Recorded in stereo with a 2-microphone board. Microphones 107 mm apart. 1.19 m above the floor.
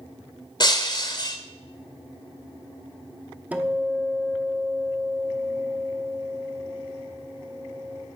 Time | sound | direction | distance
0.6 | breaking glass | 40° left (ahead or behind) | 1.4 m
3.5 | a guitar | 15° right (ahead or behind) | 0.9 m